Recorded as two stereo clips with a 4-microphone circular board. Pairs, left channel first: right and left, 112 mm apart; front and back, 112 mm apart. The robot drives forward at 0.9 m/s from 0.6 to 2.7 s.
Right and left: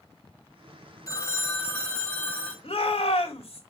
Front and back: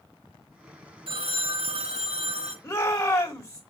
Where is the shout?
60° right, 2.5 m.